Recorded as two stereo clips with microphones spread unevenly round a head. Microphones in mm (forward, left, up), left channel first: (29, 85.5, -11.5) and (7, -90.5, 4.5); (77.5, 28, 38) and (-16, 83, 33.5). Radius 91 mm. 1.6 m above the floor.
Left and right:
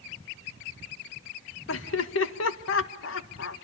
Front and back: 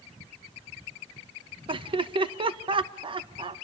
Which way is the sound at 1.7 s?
110° left.